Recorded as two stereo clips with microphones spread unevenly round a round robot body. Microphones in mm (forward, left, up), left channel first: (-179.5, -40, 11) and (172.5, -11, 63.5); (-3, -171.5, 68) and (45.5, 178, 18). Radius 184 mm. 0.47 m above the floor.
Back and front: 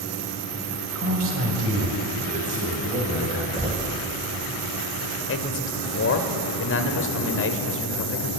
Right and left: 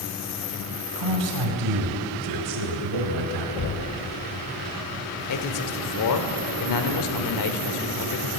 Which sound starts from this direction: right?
Knocking, at 3.6 s.